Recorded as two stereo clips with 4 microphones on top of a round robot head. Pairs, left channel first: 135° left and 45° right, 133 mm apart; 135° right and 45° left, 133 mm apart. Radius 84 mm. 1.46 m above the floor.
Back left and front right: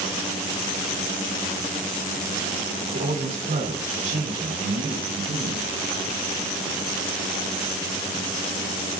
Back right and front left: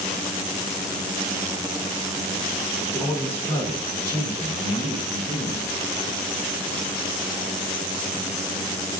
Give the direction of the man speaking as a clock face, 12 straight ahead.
2 o'clock.